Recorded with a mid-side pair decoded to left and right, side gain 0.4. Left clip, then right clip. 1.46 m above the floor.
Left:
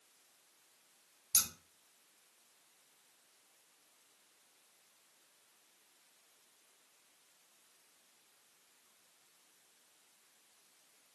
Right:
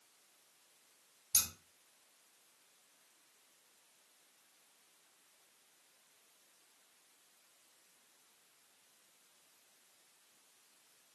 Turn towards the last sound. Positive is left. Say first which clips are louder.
# left 1 dB
turn(degrees=15)